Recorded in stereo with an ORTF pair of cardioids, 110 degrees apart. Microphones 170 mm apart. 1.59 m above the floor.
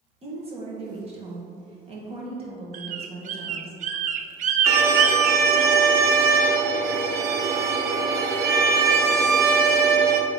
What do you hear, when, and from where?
0.2 s a woman speaking: 35° right, 1.9 m
2.7 s a bird: 50° right, 0.5 m
4.7 s a violin: 70° right, 0.9 m